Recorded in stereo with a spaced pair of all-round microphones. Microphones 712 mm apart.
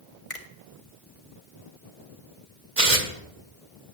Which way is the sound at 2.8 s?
60° right (ahead or behind).